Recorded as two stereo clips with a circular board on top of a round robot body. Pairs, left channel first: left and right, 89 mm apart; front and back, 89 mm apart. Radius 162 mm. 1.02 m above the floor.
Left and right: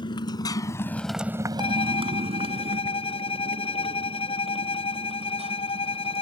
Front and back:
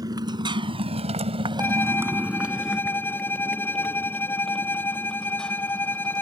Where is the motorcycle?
130° left; by 6.2 s 80° right.